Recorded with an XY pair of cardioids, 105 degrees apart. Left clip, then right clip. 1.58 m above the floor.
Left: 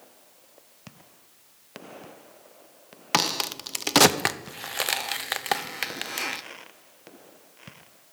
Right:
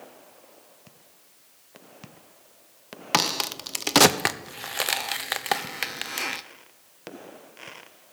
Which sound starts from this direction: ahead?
A crack, at 3.1 s.